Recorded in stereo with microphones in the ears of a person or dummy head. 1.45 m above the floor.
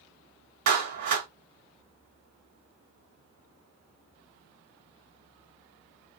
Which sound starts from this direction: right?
A clap, at 0.7 s.